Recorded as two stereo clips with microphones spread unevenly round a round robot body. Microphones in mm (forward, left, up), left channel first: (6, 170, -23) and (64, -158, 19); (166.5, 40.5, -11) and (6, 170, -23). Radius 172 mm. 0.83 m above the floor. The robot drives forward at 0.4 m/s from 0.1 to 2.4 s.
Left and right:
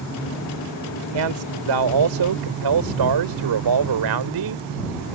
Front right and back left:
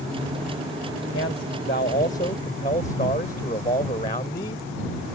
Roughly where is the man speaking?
Right.